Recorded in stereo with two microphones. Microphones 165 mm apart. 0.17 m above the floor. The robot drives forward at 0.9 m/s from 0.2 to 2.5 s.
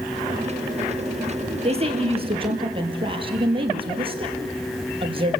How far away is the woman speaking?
About 4 m.